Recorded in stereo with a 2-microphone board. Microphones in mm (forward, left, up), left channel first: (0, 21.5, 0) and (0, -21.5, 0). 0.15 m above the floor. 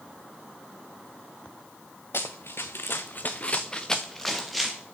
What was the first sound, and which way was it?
Running footsteps, 80° left.